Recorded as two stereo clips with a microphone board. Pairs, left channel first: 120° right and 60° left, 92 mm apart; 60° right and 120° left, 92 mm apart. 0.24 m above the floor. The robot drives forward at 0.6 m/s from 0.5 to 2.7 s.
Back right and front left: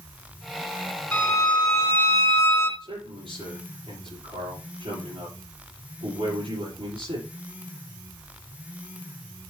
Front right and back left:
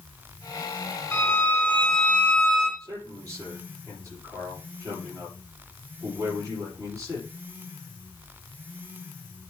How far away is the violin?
About 1.7 m.